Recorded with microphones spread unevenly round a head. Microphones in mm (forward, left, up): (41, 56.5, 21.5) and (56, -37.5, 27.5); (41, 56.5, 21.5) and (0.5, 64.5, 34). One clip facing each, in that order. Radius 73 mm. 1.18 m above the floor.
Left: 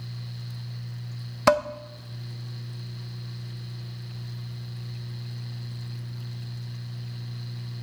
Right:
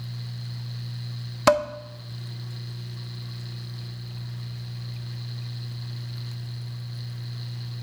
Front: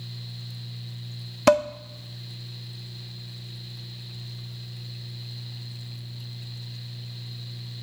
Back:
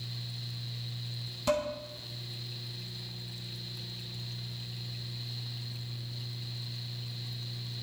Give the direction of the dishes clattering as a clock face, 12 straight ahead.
12 o'clock.